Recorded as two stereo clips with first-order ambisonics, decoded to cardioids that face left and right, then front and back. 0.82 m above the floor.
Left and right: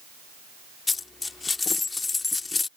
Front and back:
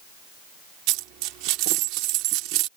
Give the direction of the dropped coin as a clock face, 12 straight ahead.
7 o'clock.